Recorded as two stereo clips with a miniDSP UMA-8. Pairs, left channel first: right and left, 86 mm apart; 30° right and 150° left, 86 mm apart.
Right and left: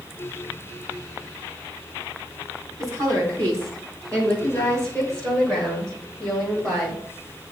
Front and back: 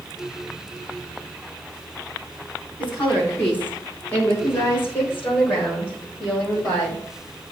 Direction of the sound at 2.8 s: 45° left.